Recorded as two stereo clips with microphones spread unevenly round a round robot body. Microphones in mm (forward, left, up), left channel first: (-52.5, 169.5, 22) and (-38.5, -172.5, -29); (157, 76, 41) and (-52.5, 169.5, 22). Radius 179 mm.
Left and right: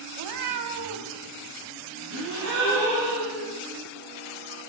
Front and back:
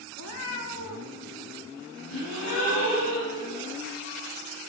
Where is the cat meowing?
60° right, 0.5 m.